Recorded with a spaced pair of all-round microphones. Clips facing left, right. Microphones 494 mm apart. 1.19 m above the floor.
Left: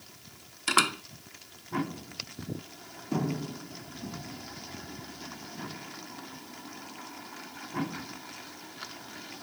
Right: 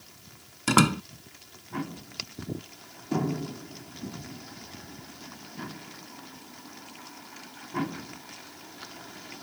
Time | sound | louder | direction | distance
0.7 | a door slam | right 10 dB | 65° right (ahead or behind) | ?